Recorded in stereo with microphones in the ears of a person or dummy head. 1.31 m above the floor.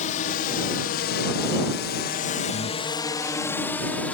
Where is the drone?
45° left (ahead or behind); by 4.2 s 5° left (ahead or behind).